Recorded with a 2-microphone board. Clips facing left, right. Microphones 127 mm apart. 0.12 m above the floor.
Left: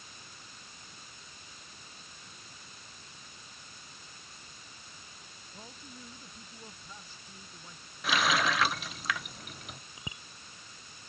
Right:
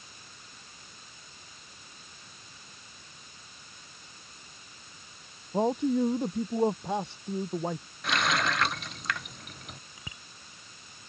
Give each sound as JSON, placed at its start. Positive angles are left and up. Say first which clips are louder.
{"t": 5.5, "sound": "a man speaking", "louder": "right 26 dB", "side_deg": -70}
{"t": 8.0, "sound": "a running tap", "louder": "even", "side_deg": 0}
{"t": 10.0, "sound": "a bicycle bell", "louder": "left 2 dB", "side_deg": 20}